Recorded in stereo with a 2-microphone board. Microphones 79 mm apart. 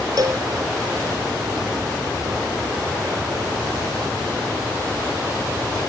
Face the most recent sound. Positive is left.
turn(degrees=-55)  # may be behind; listen again after turning